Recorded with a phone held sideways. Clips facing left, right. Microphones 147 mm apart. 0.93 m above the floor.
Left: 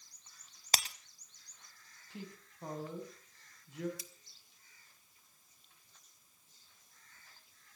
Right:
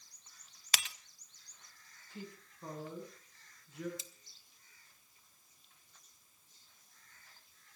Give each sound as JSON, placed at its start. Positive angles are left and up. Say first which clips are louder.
{"t": 0.7, "sound": "breaking glass", "louder": "left 4 dB", "side_deg": 35, "distance_m": 0.9}
{"t": 2.1, "sound": "a woman speaking", "louder": "even", "side_deg": 90, "distance_m": 6.5}
{"t": 4.0, "sound": "cutlery clinking", "louder": "left 2 dB", "side_deg": -25, "distance_m": 1.0}